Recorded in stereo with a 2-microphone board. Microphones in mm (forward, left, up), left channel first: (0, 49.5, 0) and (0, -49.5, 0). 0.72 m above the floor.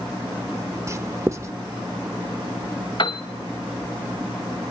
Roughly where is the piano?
Left.